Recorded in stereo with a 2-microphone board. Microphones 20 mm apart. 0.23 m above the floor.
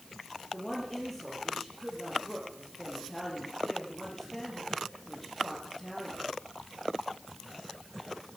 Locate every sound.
0.5 s a woman speaking: 10° left (ahead or behind), 6 m